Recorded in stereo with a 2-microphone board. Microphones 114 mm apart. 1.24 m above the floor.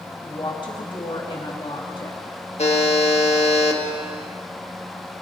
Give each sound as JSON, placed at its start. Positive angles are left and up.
{"t": 0.2, "sound": "a woman speaking", "side_deg": 45, "distance_m": 2.5}
{"t": 2.6, "sound": "a buzzer", "side_deg": 70, "distance_m": 1.5}